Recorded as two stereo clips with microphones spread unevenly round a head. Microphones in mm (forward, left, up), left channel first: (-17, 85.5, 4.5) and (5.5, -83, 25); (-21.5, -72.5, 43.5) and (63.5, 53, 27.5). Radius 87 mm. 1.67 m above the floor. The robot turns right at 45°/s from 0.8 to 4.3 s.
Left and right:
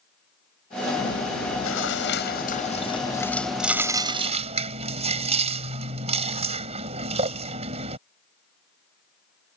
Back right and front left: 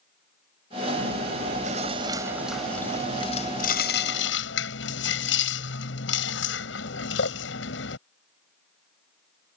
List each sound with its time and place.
1.0 s chewing: 75° left; by 8.0 s 135° right